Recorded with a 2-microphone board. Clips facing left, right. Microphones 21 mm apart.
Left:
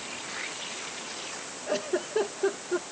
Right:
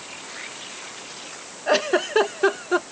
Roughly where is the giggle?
Right.